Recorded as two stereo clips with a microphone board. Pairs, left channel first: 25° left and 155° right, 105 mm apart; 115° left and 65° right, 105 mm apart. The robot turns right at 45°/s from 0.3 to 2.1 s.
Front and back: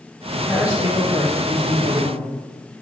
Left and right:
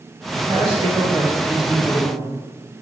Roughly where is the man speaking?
Ahead right.